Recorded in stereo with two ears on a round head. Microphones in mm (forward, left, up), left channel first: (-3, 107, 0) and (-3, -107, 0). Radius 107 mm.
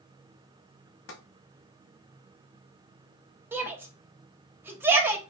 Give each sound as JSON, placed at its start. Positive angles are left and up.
{"t": 1.1, "sound": "tapping", "side_deg": 55, "distance_m": 1.0}
{"t": 3.5, "sound": "a shout", "side_deg": -10, "distance_m": 0.7}